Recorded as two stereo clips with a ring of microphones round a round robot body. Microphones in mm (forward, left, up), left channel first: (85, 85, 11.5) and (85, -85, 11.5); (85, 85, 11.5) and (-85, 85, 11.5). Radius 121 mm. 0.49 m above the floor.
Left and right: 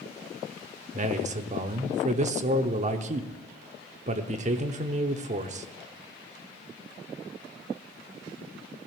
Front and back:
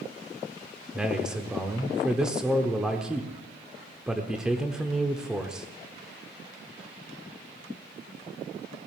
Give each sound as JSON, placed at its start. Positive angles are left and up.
{"t": 0.9, "sound": "a man speaking", "azimuth_deg": -95, "distance_m": 0.9}